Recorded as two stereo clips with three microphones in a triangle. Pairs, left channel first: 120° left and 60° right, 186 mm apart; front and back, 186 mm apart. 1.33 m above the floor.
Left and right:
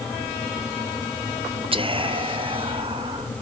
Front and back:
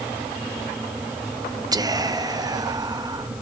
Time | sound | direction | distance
1.7 | whispering | 110° right | 0.5 m